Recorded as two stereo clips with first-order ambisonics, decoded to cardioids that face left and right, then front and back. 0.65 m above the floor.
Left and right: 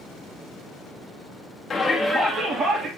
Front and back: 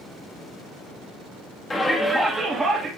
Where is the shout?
45° left, 1.2 m; by 2.9 s 120° right, 1.5 m.